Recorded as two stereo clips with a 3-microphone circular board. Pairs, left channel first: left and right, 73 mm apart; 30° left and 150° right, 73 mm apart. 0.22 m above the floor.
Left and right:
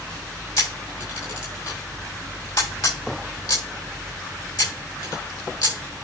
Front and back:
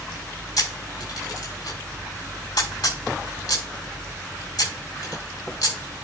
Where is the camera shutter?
65° left, 6 m.